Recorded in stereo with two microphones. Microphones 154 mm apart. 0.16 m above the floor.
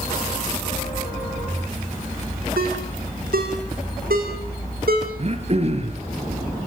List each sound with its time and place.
2.6 s a ringtone: 80° right, 5 m
5.2 s throat clearing: 45° right (ahead or behind), 3.5 m